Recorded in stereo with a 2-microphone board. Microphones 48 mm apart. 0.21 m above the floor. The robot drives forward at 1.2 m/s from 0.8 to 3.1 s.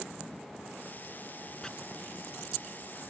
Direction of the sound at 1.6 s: 15° left (ahead or behind).